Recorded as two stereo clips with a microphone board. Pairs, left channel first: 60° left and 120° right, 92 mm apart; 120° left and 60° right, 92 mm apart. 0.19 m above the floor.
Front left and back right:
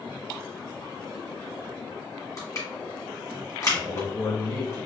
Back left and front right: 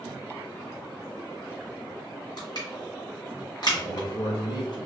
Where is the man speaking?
110° left, 1.7 m.